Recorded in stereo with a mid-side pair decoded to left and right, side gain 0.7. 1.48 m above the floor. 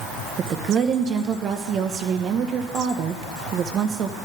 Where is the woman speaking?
40° right, 1.5 m.